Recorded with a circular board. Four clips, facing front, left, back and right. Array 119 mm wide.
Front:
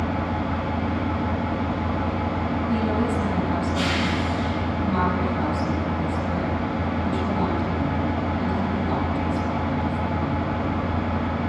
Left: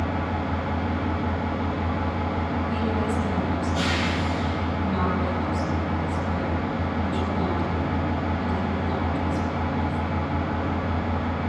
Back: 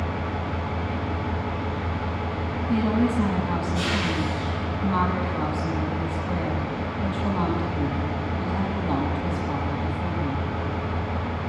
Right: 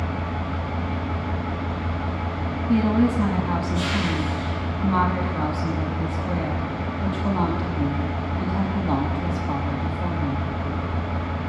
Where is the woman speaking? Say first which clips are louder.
Right 10 dB, back 3 dB; 110° right, 7 m.